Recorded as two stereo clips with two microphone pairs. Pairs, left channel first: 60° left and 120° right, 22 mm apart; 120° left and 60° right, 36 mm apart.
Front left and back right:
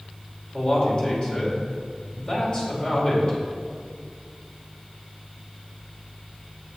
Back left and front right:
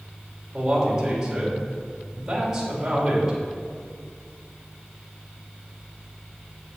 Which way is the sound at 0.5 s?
15° left.